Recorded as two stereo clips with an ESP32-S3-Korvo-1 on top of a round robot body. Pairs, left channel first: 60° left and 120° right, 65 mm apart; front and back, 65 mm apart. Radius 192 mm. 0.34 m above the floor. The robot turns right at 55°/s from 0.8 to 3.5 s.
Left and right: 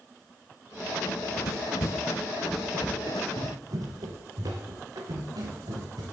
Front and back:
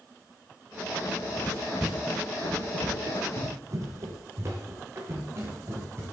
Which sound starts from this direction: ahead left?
Running footsteps, at 1.1 s.